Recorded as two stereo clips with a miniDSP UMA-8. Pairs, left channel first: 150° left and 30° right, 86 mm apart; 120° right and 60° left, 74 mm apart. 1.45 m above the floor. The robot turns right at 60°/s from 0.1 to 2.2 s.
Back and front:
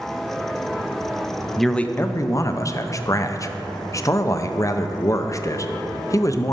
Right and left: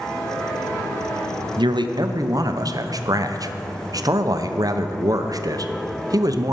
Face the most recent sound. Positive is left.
turn(degrees=100)